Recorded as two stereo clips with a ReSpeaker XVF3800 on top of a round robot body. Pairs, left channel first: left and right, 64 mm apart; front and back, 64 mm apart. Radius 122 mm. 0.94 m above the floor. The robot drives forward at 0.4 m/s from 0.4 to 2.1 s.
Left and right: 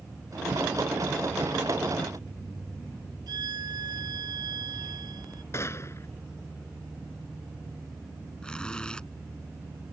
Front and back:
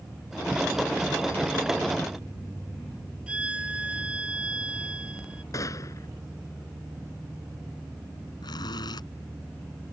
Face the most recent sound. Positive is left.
turn(degrees=15)